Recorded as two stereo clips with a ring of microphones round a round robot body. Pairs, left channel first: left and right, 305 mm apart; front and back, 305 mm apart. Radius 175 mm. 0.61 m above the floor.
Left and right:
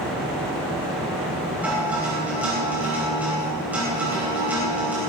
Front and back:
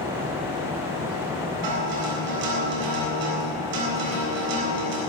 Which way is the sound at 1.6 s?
175° right.